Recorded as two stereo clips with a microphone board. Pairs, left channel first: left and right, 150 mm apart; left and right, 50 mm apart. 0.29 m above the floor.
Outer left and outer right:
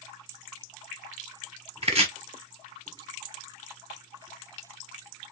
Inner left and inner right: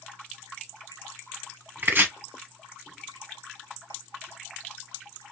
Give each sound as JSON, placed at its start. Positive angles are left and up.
{"t": 1.8, "sound": "chopping", "side_deg": -45, "distance_m": 1.0}